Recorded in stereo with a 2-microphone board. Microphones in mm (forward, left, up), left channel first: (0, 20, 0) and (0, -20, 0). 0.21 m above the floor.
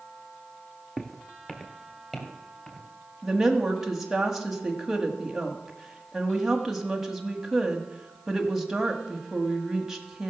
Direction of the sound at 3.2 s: 5° right (ahead or behind).